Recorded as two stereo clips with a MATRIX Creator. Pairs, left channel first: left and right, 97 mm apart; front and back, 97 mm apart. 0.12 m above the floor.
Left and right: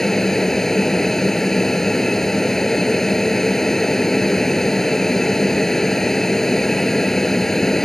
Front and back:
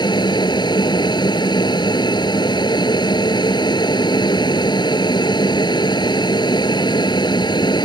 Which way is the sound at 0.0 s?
5° left.